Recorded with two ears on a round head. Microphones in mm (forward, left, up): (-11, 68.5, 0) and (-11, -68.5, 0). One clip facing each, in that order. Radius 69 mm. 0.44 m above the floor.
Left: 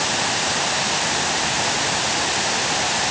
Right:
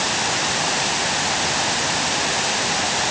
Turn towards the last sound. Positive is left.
No sound to turn to.